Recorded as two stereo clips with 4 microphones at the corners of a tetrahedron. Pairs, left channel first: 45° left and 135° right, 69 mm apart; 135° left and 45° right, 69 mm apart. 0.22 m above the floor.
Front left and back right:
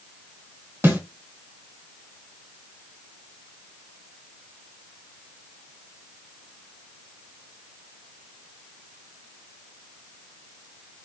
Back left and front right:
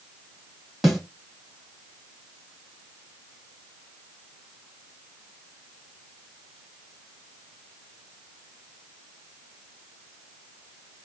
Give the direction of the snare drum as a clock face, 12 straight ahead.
5 o'clock.